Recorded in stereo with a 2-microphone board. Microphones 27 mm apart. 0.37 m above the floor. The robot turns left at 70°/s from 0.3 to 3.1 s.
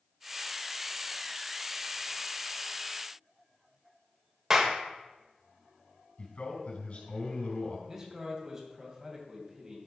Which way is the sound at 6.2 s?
60° left (ahead or behind).